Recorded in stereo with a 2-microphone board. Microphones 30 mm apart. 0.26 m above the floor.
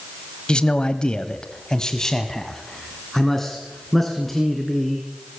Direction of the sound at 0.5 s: 30° left (ahead or behind).